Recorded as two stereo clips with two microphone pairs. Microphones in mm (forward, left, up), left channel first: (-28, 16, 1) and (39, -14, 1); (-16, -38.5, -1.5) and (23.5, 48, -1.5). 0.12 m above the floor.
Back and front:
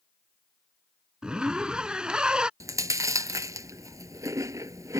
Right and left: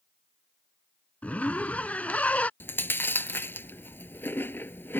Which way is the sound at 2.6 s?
50° right.